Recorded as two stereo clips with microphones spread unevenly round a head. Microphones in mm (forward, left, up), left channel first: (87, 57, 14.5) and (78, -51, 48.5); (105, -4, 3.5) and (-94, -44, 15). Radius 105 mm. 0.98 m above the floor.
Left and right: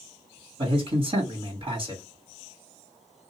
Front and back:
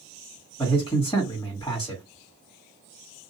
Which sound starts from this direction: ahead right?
A man speaking, at 0.6 s.